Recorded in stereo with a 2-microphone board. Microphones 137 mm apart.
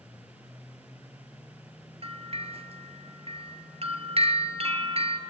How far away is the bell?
About 1.7 m.